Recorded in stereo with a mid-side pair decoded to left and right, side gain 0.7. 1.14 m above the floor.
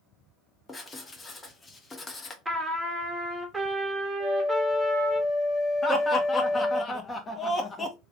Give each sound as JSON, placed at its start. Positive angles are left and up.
{"t": 0.7, "sound": "writing", "azimuth_deg": 20, "distance_m": 0.9}
{"t": 2.5, "sound": "a trumpet", "azimuth_deg": -10, "distance_m": 1.0}
{"t": 4.2, "sound": "a flute", "azimuth_deg": 20, "distance_m": 0.7}
{"t": 5.8, "sound": "laughter", "azimuth_deg": 20, "distance_m": 1.0}